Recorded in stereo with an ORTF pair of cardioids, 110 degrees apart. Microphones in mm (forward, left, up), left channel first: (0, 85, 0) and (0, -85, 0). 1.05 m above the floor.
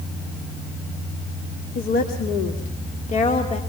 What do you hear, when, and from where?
1.8 s a woman speaking: 65° left, 2.5 m; by 3.6 s 40° left, 2.5 m